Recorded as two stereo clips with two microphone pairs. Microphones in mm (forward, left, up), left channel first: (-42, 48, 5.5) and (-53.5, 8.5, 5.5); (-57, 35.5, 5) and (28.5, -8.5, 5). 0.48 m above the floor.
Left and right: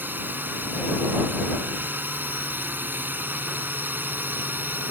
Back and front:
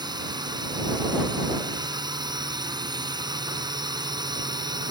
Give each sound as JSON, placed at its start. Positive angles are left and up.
{"t": 0.0, "sound": "a drone", "azimuth_deg": -70}